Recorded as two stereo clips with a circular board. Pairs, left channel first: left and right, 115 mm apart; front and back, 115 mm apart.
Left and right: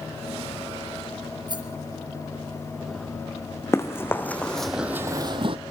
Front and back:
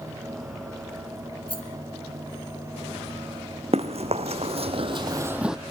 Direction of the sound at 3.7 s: 155° left.